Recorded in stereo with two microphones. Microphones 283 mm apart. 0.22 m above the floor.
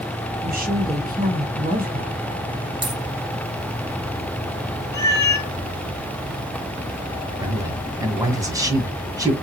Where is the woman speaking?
30° right (ahead or behind), 1.5 m.